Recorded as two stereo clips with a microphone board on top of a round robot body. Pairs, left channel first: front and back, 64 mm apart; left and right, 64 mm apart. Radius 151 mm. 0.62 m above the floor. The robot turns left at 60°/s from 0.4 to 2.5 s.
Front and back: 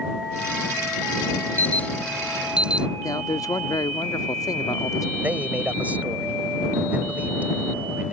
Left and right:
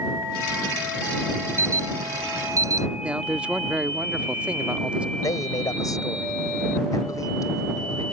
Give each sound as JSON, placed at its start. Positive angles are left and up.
{"t": 1.6, "sound": "an alarm", "azimuth_deg": -50}
{"t": 3.0, "sound": "a man speaking", "azimuth_deg": -20}
{"t": 5.2, "sound": "a man speaking", "azimuth_deg": 115}